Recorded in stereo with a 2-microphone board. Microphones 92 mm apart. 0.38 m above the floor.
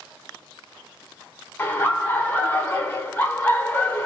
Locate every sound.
1.6 s laughter: 25° left (ahead or behind), 0.8 m